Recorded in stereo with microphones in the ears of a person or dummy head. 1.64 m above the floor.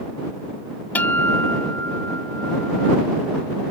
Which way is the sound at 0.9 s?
10° left (ahead or behind).